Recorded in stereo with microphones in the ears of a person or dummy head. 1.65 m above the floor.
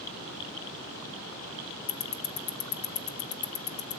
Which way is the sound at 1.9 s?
70° left (ahead or behind).